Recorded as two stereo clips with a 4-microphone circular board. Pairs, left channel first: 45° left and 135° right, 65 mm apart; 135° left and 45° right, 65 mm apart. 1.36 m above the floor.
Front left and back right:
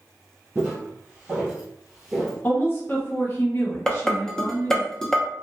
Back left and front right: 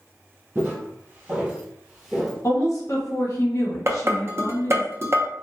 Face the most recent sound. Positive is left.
turn(degrees=-35)